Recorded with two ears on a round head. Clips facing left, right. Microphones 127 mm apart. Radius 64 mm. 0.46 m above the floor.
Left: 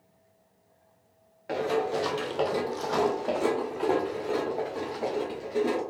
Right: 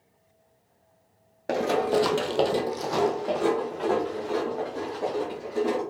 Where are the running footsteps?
55° right (ahead or behind), 1.2 m; by 5.8 s 20° left (ahead or behind), 4.5 m.